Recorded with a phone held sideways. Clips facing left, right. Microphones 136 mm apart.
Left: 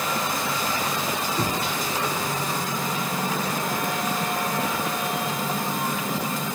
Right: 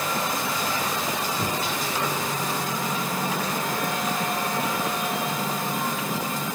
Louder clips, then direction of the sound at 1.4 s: Left 2 dB; 75° left (ahead or behind).